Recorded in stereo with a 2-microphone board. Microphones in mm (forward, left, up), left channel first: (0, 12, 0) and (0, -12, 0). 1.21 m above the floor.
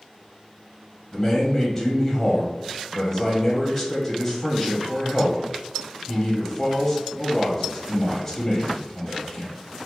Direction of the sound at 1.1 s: 5° left (ahead or behind).